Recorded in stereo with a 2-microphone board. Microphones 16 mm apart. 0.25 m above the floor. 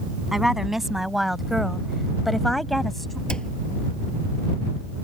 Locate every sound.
0.3 s a woman speaking: 30° right (ahead or behind); by 3.2 s 20° left (ahead or behind)
3.3 s a cupboard door: 80° left